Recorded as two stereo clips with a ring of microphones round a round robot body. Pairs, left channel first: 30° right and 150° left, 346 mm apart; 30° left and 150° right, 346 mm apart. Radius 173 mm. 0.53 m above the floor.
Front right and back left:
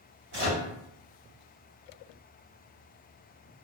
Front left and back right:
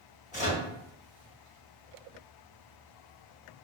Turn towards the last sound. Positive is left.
turn(degrees=95)